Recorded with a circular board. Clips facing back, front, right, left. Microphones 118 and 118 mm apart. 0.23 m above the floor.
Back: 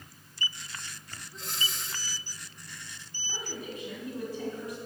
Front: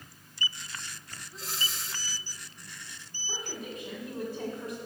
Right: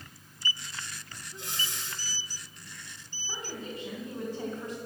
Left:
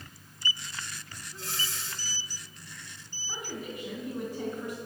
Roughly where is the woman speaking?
Ahead right.